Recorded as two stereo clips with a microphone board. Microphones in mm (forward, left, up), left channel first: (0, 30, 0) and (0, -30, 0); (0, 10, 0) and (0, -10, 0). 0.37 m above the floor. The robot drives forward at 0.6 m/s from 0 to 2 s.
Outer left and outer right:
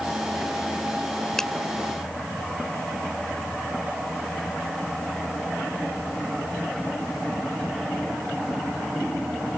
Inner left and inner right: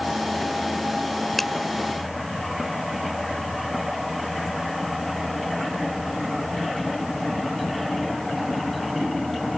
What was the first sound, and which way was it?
A finger snap, 10° left (ahead or behind).